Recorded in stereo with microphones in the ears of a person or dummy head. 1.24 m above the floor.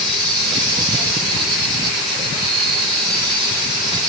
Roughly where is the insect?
Right.